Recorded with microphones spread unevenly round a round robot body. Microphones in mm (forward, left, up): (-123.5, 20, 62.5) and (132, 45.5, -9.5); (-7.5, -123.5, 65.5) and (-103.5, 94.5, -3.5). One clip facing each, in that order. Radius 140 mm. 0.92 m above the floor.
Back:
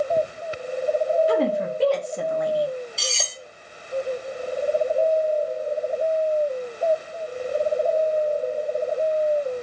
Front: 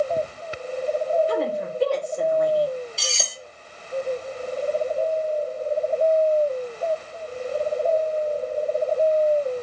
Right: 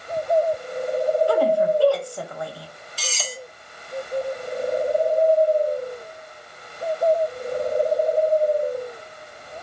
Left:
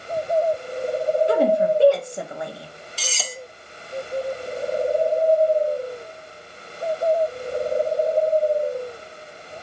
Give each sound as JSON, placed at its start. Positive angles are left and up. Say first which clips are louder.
{"t": 1.3, "sound": "a woman speaking", "louder": "back 3 dB, left 1 dB", "azimuth_deg": 165, "distance_m": 0.9}
{"t": 3.0, "sound": "cutlery clinking", "louder": "back 1 dB, right 1 dB", "azimuth_deg": 95, "distance_m": 0.5}